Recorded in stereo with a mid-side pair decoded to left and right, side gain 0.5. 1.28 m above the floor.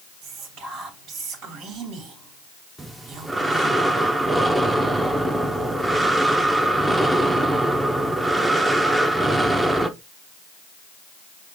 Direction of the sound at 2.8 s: 15° right.